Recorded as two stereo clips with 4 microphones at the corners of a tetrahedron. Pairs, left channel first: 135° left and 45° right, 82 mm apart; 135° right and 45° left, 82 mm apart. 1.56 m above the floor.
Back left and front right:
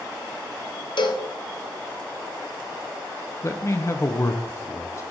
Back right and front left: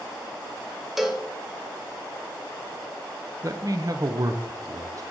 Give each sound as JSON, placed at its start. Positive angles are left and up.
{"t": 1.0, "sound": "a cowbell", "azimuth_deg": 130, "distance_m": 0.6}
{"t": 3.4, "sound": "a man speaking", "azimuth_deg": 85, "distance_m": 0.6}